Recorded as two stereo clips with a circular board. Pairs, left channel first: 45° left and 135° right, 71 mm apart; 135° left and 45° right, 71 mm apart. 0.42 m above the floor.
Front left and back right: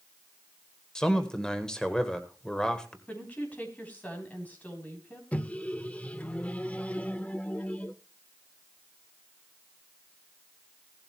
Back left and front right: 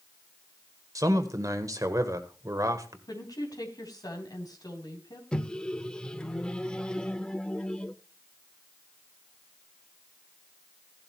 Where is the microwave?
80° left, 0.7 m.